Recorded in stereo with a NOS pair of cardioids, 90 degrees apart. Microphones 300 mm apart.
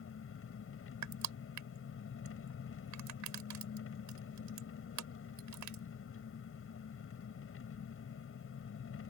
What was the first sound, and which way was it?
An engine running, 45° left.